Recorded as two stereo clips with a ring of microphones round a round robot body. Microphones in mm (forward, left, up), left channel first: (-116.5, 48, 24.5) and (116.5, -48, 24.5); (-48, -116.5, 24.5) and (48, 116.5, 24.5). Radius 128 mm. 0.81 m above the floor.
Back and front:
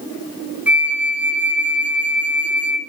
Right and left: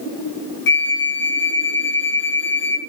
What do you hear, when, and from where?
0.7 s a flute: 105° right, 0.8 m